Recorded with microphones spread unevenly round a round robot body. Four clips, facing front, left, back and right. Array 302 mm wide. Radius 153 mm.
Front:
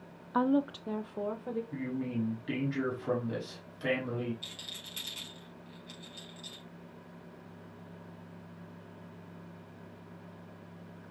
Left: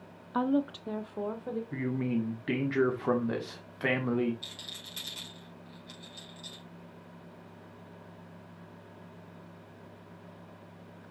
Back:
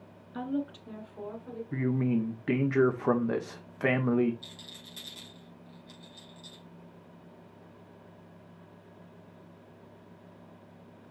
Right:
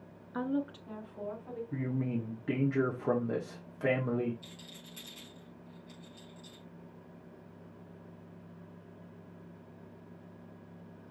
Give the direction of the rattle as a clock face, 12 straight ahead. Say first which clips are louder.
Left 2 dB, even; 10 o'clock.